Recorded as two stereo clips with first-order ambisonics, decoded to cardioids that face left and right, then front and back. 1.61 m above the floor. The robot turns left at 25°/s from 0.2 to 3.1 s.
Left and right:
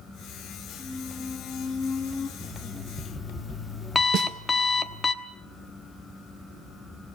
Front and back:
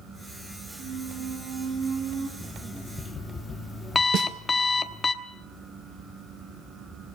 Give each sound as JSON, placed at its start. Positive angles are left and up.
{"t": 0.8, "sound": "a squeak", "azimuth_deg": 175, "distance_m": 4.0}
{"t": 2.4, "sound": "an alarm clock", "azimuth_deg": 60, "distance_m": 1.1}
{"t": 4.1, "sound": "a snare drum", "azimuth_deg": -135, "distance_m": 1.6}